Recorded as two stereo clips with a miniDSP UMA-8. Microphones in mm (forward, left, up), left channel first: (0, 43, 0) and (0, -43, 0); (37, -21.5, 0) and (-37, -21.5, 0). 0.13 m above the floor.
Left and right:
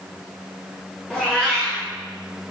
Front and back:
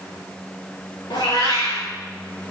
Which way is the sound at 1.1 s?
5° left.